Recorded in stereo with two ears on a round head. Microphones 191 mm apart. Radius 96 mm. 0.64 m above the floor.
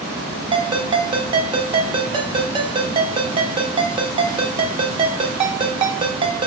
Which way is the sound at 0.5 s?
25° right (ahead or behind).